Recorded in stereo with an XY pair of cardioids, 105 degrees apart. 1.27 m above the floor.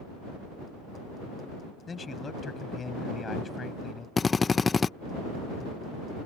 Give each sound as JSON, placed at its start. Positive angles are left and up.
{"t": 1.9, "sound": "a man speaking", "azimuth_deg": 35}
{"t": 4.2, "sound": "a drill", "azimuth_deg": 30}